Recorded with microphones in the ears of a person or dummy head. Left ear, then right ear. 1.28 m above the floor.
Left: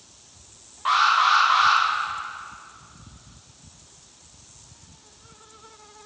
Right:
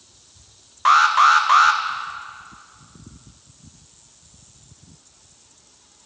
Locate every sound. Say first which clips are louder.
0.8 s an alarm: right 5 dB; 55° right (ahead or behind), 0.6 m